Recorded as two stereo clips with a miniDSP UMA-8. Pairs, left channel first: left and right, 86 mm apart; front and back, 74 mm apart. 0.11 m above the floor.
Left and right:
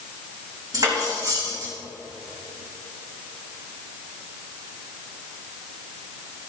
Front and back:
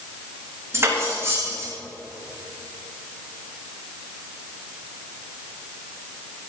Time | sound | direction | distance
0.7 | cutlery clinking | 130° right | 4 m